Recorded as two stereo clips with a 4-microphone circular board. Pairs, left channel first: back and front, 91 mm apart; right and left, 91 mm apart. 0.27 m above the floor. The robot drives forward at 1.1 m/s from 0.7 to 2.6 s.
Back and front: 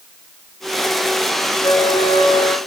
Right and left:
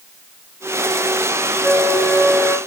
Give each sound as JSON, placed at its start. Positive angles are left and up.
{"t": 1.6, "sound": "a flute", "azimuth_deg": -160, "distance_m": 0.8}